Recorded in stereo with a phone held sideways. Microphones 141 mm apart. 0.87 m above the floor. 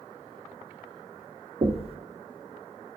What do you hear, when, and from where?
1.6 s knocking: 45° right (ahead or behind), 0.6 m